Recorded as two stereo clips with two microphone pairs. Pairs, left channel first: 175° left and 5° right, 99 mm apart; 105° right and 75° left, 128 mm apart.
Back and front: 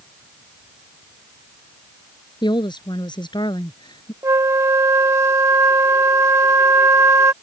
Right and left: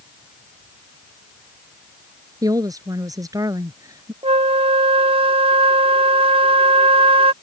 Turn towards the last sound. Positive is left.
turn(degrees=45)